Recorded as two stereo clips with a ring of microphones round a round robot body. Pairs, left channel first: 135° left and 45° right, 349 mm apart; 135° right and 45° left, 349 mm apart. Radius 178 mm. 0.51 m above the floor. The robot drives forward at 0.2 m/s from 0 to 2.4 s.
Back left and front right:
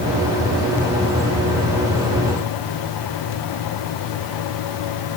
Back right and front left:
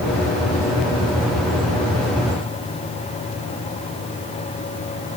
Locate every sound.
Only background noise.